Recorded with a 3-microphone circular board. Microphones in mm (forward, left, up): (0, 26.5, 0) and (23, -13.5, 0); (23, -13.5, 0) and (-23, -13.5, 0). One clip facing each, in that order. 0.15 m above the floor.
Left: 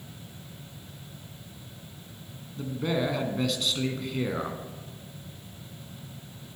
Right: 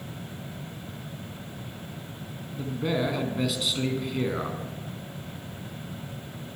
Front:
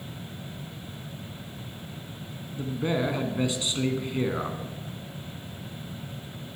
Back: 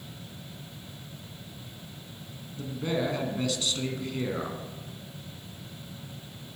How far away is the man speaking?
About 1.2 m.